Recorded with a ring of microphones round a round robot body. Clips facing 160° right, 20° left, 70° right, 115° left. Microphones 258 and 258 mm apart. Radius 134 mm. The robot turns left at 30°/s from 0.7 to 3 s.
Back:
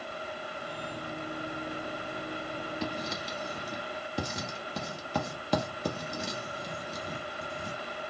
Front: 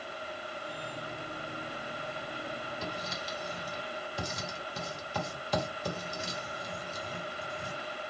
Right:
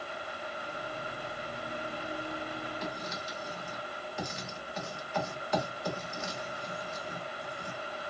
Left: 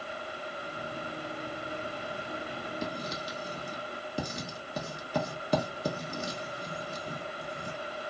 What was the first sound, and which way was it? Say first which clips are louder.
Writing: back 4 dB, left 3 dB; 175° left.